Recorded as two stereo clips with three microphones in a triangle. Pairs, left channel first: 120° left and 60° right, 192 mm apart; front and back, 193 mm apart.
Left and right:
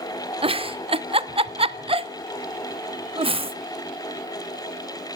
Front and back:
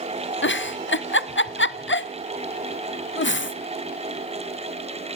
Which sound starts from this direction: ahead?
A giggle, at 0.4 s.